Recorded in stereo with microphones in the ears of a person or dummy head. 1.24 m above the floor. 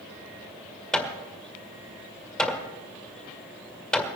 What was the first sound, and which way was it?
Hammering, 5° left (ahead or behind).